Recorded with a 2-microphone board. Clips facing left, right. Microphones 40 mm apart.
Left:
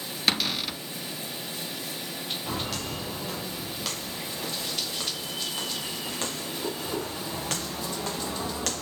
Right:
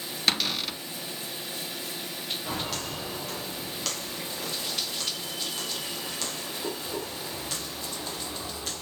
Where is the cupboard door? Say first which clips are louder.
Left 1 dB; centre (ahead or behind), 0.7 m.